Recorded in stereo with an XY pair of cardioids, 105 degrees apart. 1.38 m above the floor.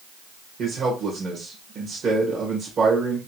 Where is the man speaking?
50° right, 1.4 m.